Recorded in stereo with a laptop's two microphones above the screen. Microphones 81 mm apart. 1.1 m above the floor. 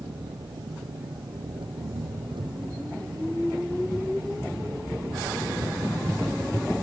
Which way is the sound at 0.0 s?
75° right (ahead or behind).